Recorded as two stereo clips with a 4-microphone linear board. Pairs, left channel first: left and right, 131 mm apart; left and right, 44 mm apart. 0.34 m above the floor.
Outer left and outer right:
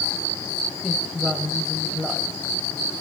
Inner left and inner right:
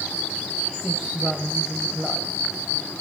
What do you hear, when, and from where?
0.8 s a woman speaking: centre (ahead or behind), 1.5 m